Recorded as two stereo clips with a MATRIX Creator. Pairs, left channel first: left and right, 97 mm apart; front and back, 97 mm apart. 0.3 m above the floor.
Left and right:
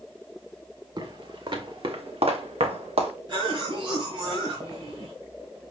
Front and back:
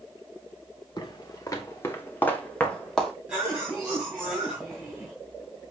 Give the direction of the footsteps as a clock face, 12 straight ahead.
2 o'clock.